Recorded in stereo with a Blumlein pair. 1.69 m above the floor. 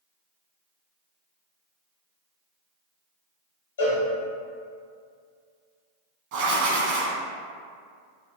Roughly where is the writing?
Ahead right.